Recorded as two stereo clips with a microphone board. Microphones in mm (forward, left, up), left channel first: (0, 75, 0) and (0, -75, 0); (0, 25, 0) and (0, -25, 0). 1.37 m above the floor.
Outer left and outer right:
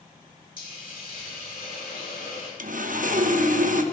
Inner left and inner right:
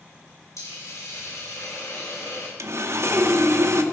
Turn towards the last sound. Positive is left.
turn(degrees=-65)  # may be behind; listen again after turning